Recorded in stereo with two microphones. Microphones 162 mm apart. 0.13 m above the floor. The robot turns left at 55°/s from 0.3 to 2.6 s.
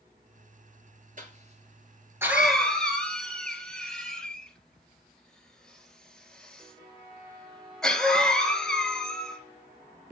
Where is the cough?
55° right (ahead or behind), 2.5 m; by 9.4 s 5° left (ahead or behind), 2.5 m.